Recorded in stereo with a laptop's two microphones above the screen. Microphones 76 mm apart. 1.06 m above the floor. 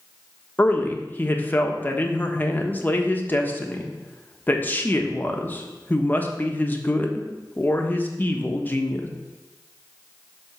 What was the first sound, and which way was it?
A man speaking, 25° left (ahead or behind).